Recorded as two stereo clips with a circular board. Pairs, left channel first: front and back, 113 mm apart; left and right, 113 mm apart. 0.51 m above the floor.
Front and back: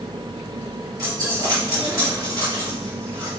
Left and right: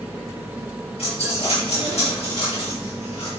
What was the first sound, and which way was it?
A dropped coin, 120° left.